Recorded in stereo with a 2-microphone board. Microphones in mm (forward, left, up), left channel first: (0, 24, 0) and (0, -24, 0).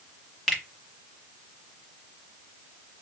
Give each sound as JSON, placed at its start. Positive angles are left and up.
{"t": 0.5, "sound": "a finger snap", "side_deg": 5, "distance_m": 1.3}